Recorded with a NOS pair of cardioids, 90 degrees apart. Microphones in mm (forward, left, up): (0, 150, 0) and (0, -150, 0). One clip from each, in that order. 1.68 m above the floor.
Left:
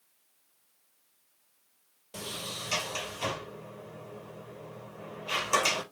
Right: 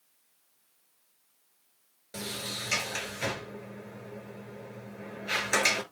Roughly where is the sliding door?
Ahead.